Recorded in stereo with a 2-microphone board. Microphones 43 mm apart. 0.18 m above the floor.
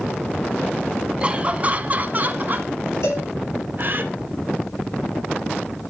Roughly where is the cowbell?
Left.